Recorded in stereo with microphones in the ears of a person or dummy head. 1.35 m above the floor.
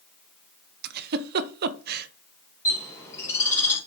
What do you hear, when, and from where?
0.8 s a giggle: 60° right (ahead or behind), 0.6 m
2.6 s a bird: 15° left (ahead or behind), 2.5 m